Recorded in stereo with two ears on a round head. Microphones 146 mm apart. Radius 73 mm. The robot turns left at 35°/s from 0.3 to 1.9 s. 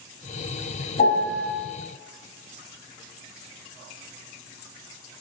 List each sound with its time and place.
1.0 s a piano: 40° left (ahead or behind), 0.9 m